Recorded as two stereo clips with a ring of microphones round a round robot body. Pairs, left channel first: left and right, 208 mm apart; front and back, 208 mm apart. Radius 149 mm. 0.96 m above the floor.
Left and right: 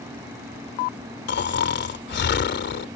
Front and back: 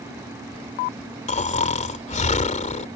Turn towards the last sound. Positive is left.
turn(degrees=55)